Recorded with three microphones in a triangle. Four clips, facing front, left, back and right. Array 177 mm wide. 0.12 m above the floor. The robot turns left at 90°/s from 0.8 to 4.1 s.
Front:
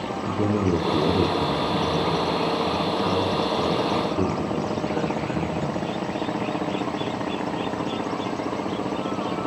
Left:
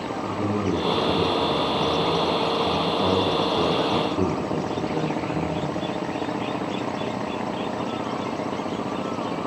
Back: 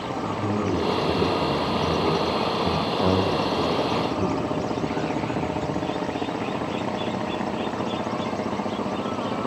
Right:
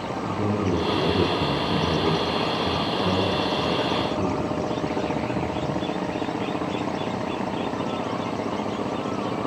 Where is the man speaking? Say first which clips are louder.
Even, front 4 dB; 10° right, 5.5 m; by 5.8 s 55° left, 5.5 m.